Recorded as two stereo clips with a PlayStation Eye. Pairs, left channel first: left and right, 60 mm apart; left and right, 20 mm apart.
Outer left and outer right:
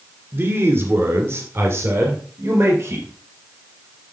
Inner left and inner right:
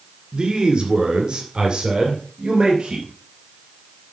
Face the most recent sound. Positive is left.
turn(degrees=-45)  # may be behind; listen again after turning